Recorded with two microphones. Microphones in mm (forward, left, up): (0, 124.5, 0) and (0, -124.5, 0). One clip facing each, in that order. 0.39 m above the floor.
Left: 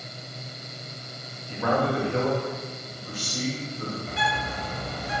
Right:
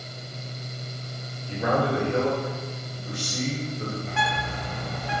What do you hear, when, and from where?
1.5 s a man speaking: 25° right (ahead or behind), 1.5 m
4.1 s a bird: 40° left (ahead or behind), 0.8 m